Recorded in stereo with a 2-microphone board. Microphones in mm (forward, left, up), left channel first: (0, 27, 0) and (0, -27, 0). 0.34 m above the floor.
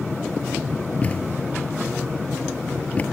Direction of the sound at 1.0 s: 25° left (ahead or behind).